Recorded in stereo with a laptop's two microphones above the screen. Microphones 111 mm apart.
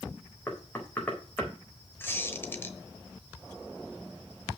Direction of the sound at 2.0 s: 20° left (ahead or behind).